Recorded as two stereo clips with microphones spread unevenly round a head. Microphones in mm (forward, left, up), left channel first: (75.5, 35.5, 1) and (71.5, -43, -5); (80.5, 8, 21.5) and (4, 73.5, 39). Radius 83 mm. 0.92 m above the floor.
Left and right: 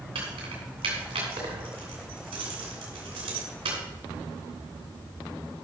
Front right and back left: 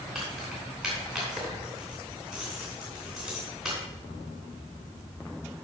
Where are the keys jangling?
130° right, 2.5 m.